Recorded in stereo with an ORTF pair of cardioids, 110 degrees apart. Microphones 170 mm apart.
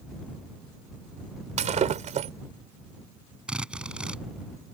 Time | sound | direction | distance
1.6 | breaking glass | 45° right | ?
3.5 | a drill | 5° right | ?